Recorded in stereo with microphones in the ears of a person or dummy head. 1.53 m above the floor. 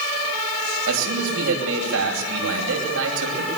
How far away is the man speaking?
About 10 m.